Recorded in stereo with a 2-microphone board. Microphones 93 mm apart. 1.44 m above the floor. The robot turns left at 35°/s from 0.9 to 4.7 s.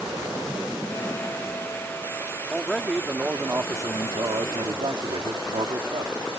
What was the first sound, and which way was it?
A man speaking, 5° left.